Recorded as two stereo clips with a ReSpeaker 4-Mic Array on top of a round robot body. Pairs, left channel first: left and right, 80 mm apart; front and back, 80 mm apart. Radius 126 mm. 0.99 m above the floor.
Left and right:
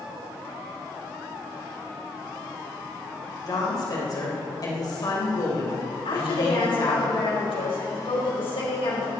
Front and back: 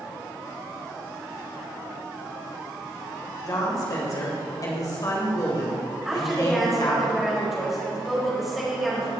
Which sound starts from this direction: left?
A woman speaking, at 6.0 s.